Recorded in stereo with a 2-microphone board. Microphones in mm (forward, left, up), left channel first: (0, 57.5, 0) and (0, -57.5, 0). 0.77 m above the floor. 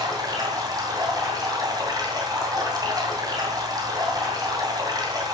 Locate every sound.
0.0 s running water: 35° right (ahead or behind), 2.0 m